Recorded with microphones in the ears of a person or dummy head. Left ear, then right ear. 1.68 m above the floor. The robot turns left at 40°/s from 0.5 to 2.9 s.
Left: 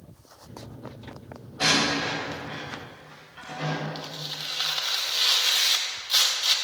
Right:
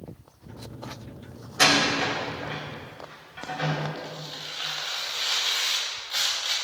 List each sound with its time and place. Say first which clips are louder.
1.6 s a door slam: right 2 dB; 60° right (ahead or behind), 5 m; by 3.8 s 10° right (ahead or behind), 5 m
4.0 s tearing paper: left 2 dB; 35° left (ahead or behind), 2 m